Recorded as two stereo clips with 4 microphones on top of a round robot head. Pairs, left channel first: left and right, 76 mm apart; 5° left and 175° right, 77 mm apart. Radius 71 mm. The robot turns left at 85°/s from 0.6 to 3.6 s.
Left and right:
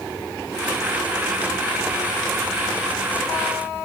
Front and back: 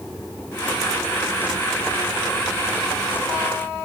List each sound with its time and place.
Only background noise.